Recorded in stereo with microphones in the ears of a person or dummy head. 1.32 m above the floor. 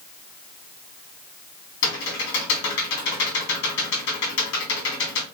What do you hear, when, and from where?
1.8 s typing on a keyboard: 60° left (ahead or behind), 2.5 m